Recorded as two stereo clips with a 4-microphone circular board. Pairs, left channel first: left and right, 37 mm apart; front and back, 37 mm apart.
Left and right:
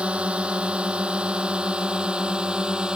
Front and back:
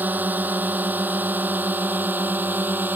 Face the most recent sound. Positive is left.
turn(degrees=-155)